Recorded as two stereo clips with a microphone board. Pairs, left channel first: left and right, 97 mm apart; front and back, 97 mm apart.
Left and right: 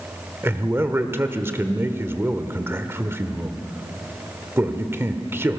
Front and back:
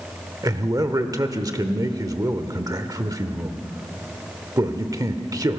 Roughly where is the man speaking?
Behind right.